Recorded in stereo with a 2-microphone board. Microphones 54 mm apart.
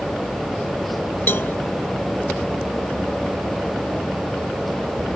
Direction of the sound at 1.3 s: 40° left (ahead or behind).